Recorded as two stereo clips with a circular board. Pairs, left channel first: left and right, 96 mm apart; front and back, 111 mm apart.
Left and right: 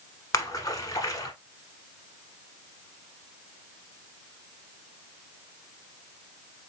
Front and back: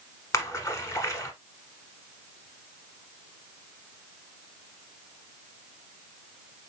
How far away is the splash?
About 1.0 m.